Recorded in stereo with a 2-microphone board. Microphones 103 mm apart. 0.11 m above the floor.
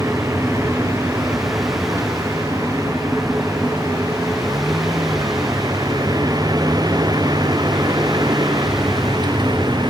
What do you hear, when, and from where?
0.0 s a vehicle: 30° right (ahead or behind); by 9.9 s 45° right (ahead or behind)